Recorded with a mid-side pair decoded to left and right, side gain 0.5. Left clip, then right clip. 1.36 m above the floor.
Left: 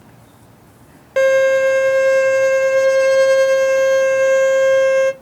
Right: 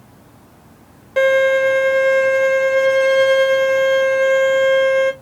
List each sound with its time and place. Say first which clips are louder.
1.2 s a violin: left 1 dB; 25° left, 1.1 m